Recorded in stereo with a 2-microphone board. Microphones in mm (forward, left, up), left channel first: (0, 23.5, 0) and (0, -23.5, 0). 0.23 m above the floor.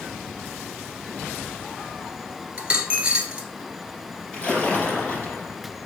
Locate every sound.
2.6 s a dropped coin: 25° right (ahead or behind), 1.5 m
4.3 s a splash: 25° left (ahead or behind), 3 m